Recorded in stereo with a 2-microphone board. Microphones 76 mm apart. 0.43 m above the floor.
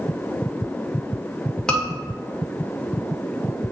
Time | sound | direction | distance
1.7 | a scream | 10° left (ahead or behind) | 1.8 m